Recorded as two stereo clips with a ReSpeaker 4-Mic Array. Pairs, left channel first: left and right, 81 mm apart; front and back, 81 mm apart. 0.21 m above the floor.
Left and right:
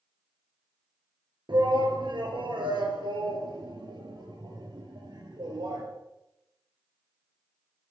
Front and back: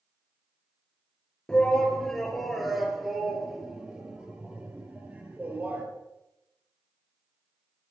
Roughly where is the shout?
Right.